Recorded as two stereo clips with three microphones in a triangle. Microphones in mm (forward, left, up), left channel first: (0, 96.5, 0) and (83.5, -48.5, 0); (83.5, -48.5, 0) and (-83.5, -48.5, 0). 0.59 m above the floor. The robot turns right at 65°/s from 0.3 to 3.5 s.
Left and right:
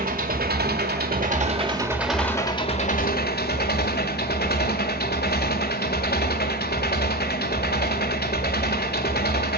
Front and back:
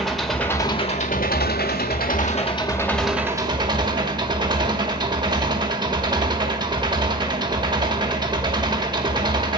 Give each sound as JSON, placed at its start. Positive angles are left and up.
{"t": 0.0, "sound": "an engine running", "azimuth_deg": -90, "distance_m": 1.6}